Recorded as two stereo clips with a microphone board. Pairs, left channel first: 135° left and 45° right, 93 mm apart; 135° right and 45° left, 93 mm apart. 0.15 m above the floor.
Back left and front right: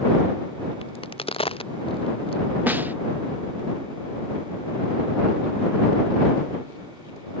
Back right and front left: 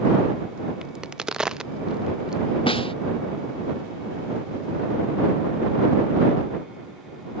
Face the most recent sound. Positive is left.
turn(degrees=-115)